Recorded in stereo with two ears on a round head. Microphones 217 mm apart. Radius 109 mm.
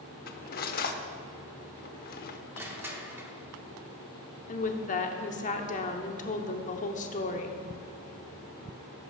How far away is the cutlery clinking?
About 0.7 m.